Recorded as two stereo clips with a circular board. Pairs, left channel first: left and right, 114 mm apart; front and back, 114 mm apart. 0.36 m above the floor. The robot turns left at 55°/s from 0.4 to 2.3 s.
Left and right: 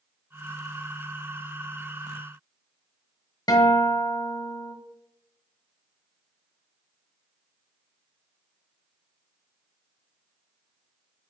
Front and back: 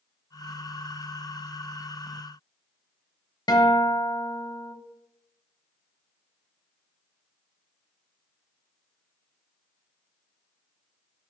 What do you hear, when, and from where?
3.5 s a guitar: 45° left, 1.2 m